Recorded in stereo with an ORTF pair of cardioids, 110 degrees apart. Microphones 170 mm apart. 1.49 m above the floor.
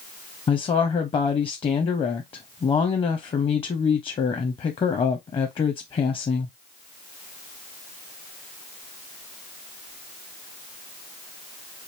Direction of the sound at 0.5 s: 30° left.